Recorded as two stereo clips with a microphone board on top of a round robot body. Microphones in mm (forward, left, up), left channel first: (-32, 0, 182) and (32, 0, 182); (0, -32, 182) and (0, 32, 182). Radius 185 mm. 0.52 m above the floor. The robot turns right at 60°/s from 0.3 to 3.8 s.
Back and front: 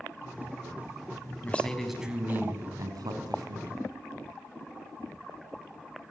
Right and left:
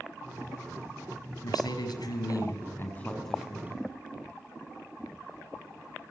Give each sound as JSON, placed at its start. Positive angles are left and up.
{"t": 1.4, "sound": "a man speaking", "azimuth_deg": -115, "distance_m": 5.5}